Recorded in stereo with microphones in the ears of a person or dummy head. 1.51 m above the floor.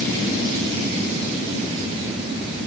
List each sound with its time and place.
Only background noise.